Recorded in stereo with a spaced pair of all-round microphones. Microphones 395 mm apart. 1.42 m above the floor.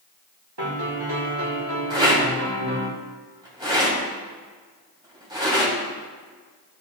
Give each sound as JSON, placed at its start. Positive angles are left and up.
{"t": 0.6, "sound": "a piano", "side_deg": -75, "distance_m": 1.4}
{"t": 1.9, "sound": "a rattle", "side_deg": -10, "distance_m": 2.5}